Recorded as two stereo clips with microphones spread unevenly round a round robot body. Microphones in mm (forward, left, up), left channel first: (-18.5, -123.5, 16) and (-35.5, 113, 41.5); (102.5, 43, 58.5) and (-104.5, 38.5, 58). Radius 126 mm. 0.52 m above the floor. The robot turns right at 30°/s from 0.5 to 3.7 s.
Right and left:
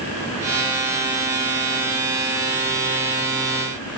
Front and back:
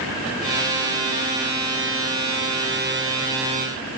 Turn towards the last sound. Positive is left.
No sound to turn to.